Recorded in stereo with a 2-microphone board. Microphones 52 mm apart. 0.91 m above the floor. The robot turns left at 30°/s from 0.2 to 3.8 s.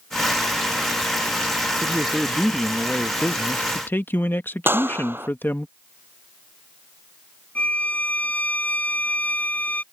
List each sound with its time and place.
1.8 s a man speaking: 165° right; by 5.7 s 135° left
4.7 s a clap: 40° right (ahead or behind)
7.5 s a violin: 30° left (ahead or behind)